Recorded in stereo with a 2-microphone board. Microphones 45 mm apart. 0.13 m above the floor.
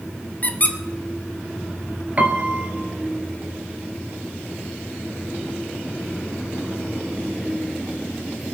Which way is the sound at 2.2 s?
35° right (ahead or behind).